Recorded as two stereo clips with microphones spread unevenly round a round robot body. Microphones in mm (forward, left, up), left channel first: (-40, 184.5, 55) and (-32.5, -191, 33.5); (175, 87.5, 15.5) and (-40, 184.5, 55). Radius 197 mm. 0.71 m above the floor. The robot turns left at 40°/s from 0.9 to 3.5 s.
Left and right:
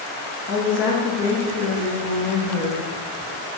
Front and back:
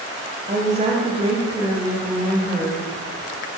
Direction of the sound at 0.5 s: 105° left.